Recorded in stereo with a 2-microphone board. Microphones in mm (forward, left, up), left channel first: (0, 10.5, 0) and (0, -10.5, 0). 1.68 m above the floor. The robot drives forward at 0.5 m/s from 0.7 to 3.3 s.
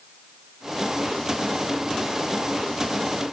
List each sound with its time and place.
Only background noise.